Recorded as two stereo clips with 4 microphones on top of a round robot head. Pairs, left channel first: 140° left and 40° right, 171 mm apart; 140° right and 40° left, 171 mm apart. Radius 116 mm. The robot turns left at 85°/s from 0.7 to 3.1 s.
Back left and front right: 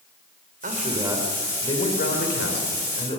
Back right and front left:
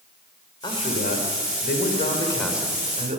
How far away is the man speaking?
About 3.5 m.